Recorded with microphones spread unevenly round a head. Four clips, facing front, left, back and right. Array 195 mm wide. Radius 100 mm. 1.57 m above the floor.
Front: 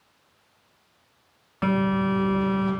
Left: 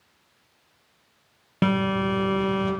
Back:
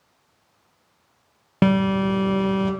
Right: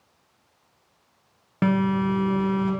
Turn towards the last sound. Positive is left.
turn(degrees=170)